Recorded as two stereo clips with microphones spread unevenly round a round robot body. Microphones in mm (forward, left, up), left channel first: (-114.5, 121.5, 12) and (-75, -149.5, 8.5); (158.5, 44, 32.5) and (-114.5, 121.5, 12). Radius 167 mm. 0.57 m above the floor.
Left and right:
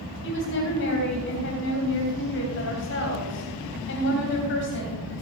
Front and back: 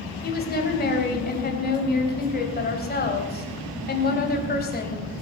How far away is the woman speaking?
About 3 m.